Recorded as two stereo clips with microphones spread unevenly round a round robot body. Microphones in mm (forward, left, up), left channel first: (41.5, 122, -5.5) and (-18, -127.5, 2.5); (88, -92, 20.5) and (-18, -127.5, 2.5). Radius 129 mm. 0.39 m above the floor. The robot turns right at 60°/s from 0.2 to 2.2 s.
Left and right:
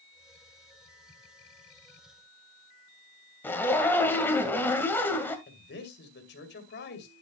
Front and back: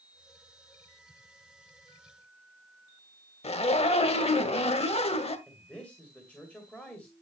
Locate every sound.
3.4 s a zipper: 5° right, 1.7 m
5.5 s a man speaking: 110° left, 2 m